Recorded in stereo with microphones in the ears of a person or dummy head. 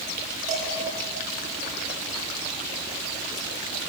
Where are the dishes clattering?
45° right (ahead or behind), 7 m.